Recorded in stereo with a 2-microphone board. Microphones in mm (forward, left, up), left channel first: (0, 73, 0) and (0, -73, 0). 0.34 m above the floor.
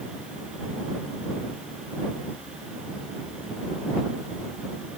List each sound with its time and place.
Only background noise.